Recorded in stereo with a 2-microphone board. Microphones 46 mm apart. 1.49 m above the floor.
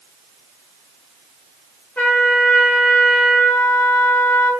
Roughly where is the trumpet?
Left.